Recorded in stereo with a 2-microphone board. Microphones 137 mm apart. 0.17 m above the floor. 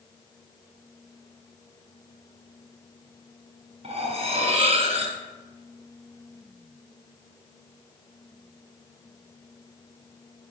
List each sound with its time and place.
3.8 s cutlery clinking: 45° right (ahead or behind), 1.4 m